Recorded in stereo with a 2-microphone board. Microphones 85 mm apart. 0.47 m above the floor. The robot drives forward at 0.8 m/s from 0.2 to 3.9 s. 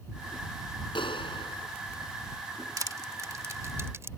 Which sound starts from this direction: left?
A clap, at 0.9 s.